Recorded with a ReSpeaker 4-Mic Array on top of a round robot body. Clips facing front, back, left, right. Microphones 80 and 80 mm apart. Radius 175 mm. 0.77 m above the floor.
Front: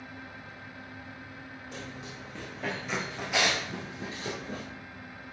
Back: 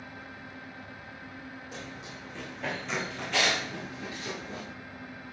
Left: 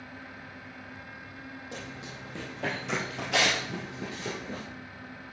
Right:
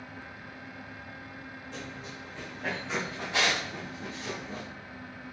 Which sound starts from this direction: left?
Running footsteps, at 1.7 s.